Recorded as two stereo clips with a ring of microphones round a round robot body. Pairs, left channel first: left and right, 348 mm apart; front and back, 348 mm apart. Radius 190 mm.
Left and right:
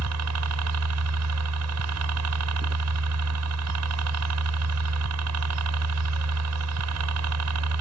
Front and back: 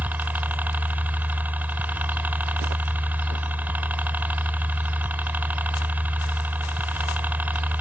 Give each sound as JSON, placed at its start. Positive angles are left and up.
{"t": 0.0, "sound": "a helicopter", "azimuth_deg": -95}